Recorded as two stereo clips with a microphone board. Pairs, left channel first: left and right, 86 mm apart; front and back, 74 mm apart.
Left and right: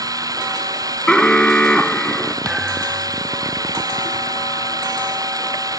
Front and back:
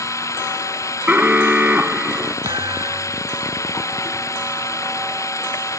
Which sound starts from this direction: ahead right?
Running water, at 0.0 s.